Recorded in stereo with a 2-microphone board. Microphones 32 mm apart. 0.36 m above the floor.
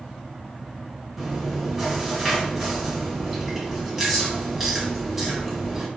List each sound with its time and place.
1.2 s chewing: centre (ahead or behind), 1.6 m